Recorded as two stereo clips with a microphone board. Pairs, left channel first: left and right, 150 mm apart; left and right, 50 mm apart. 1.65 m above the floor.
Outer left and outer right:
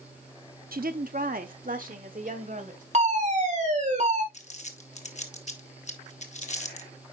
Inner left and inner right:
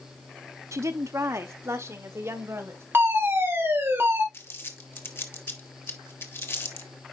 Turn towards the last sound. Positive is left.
turn(degrees=50)  # may be behind; listen again after turning